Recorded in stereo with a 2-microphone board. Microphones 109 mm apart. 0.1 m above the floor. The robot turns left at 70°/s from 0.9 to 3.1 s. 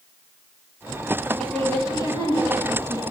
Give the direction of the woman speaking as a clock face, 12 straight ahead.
6 o'clock.